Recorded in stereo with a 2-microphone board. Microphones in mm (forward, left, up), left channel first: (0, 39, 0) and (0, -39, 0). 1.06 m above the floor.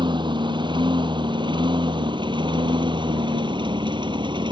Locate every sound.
0.0 s a lawn mower: 80° right